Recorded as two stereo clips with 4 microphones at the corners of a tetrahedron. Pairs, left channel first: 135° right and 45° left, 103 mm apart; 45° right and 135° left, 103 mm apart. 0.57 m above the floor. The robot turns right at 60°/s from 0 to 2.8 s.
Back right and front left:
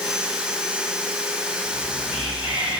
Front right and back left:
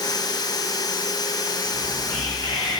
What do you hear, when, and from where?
1.6 s whispering: 150° right, 5.5 m; by 2.8 s 80° right, 5.5 m